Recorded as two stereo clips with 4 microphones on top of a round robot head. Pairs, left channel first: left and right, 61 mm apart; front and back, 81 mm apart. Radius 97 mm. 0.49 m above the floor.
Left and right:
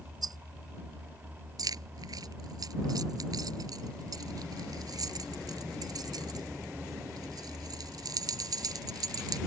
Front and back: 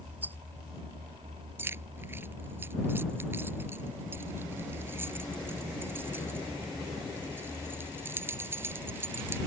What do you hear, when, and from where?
0.2 s a rattle: 110° right
1.6 s keys jangling: 115° right